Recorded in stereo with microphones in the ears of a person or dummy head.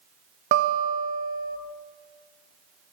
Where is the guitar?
50° right (ahead or behind), 0.6 m.